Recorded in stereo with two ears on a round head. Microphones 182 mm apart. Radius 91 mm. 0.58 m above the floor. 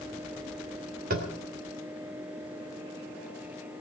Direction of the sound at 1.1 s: 45° right (ahead or behind).